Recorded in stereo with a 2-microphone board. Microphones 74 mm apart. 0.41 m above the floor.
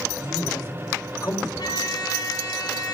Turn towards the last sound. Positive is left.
turn(degrees=60)  # may be behind; listen again after turning